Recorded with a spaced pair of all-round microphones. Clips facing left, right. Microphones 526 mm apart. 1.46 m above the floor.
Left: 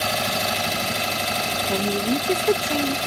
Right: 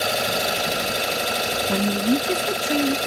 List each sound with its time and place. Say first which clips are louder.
0.0 s an engine running: right 2 dB; 20° left (ahead or behind)
1.7 s a woman speaking: right 2 dB; 30° right (ahead or behind)